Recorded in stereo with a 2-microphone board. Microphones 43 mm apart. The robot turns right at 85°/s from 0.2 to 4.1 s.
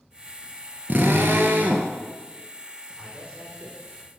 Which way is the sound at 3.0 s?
170° right.